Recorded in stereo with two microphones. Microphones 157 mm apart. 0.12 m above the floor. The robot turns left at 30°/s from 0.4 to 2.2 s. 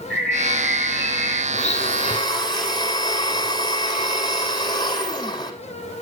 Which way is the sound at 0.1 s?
5° left.